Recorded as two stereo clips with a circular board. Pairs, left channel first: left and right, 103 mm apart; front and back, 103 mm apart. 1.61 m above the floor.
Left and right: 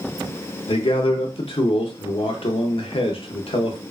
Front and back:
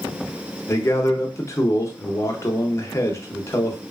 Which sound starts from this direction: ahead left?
A man speaking, at 0.7 s.